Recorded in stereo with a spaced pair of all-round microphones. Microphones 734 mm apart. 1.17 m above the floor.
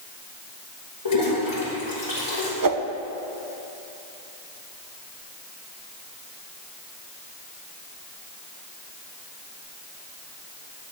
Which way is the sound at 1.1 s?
40° left (ahead or behind).